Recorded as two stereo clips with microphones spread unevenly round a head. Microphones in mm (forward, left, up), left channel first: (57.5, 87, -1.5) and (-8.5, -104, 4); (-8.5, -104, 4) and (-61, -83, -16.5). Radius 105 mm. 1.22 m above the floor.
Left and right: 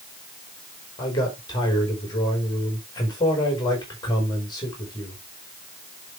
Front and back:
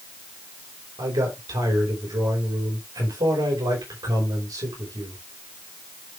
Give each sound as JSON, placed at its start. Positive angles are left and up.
{"t": 1.0, "sound": "a man speaking", "azimuth_deg": 145, "distance_m": 5.0}